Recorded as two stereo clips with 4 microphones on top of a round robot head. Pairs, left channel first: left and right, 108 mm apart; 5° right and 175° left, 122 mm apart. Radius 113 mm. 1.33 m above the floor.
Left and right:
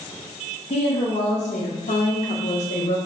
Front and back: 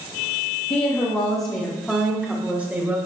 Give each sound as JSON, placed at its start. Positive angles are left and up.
{"t": 0.7, "sound": "a woman speaking", "azimuth_deg": 45, "distance_m": 1.5}